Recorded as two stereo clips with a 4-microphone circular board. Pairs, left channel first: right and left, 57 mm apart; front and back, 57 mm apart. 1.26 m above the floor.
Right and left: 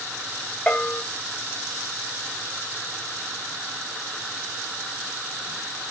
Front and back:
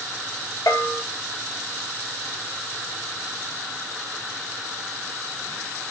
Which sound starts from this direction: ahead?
A bell, at 0.7 s.